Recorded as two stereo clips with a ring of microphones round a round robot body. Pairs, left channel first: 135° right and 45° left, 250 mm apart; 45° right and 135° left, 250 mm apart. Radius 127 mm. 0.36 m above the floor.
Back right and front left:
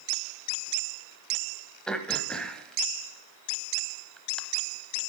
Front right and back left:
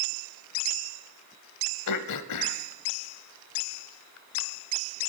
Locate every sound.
1.9 s throat clearing: 50° right, 0.9 m